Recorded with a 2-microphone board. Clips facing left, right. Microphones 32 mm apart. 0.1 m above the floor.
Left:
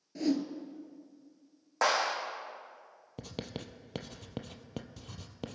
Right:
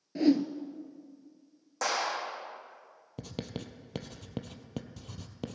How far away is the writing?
About 0.8 m.